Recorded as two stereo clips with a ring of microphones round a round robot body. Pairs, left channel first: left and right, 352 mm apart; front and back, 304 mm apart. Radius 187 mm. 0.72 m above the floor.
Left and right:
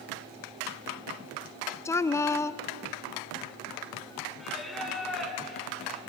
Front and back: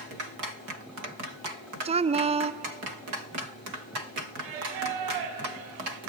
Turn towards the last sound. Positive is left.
turn(degrees=180)